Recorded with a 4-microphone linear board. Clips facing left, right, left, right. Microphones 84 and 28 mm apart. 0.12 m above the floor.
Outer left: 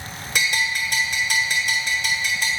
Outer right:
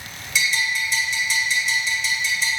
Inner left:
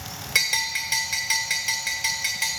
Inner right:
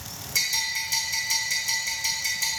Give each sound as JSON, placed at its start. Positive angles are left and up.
{"t": 0.3, "sound": "a bell", "side_deg": 50, "distance_m": 1.3}